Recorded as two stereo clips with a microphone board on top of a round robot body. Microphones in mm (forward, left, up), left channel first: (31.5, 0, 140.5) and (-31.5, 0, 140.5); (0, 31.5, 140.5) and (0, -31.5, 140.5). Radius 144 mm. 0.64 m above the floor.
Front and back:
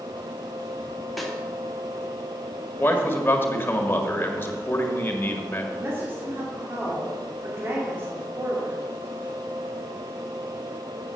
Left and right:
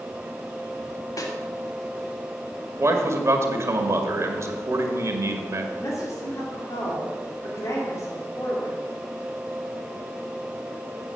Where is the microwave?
No microwave in this recording.